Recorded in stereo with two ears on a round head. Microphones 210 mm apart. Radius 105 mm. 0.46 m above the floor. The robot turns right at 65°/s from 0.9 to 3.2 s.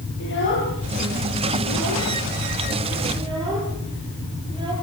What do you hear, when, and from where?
0.2 s a child speaking: 55° left (ahead or behind), 7.5 m; by 4.7 s 20° right (ahead or behind), 7.5 m